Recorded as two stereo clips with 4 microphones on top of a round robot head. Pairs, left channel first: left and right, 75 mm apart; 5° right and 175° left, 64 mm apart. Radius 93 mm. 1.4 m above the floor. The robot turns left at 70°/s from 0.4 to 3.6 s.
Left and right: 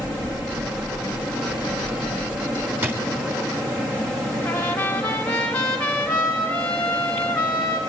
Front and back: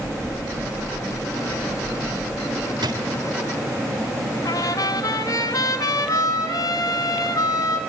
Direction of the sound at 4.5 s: 15° left.